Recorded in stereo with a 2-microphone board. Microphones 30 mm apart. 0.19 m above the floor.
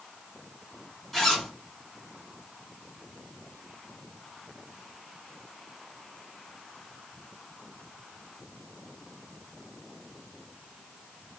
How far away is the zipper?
About 1.4 m.